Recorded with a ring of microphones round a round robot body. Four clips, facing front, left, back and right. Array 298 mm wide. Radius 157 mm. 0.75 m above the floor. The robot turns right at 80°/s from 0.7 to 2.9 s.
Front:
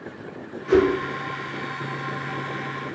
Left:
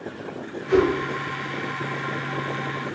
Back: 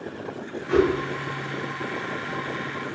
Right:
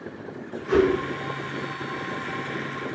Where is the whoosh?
5° right, 0.9 m; by 0.9 s 10° left, 0.9 m.